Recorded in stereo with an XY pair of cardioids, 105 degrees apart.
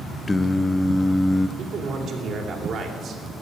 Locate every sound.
0.3 s singing: 20° left, 0.5 m
1.6 s a man speaking: 50° right, 3 m